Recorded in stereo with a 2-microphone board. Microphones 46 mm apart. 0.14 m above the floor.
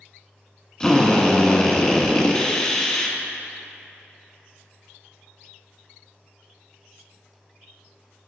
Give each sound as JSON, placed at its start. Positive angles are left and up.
{"t": 0.8, "sound": "a drill", "side_deg": 15, "distance_m": 0.7}